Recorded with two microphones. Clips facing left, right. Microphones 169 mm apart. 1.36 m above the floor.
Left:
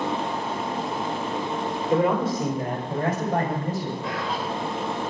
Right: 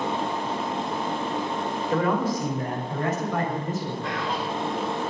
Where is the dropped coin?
No dropped coin in this recording.